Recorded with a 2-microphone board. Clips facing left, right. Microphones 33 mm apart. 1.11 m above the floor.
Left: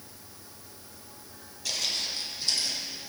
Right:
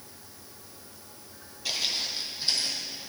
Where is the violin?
No violin in this recording.